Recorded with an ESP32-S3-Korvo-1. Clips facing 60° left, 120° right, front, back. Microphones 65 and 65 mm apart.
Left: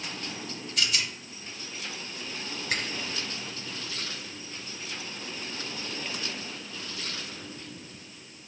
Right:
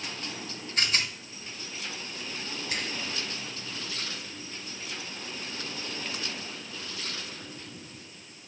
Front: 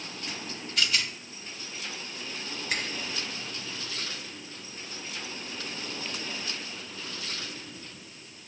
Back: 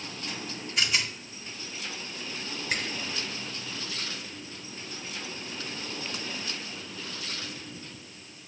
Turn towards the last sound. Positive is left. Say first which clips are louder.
# left 4 dB, back 1 dB
turn(degrees=90)